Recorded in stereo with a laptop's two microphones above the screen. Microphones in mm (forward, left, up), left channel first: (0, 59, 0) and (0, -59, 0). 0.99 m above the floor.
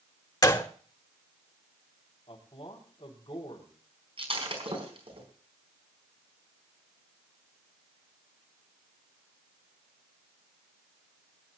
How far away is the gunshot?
About 1.1 m.